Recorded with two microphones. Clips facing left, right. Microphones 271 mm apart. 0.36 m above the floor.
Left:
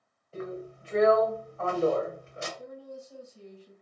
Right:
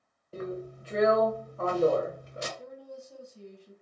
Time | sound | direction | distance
0.3 | a drill | 40° right (ahead or behind) | 1.0 m
2.6 | a woman speaking | 5° left (ahead or behind) | 2 m